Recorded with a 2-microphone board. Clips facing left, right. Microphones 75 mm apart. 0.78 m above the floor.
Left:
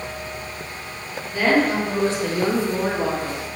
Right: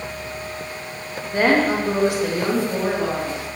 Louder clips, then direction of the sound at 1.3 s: Right 1 dB; 45° right (ahead or behind).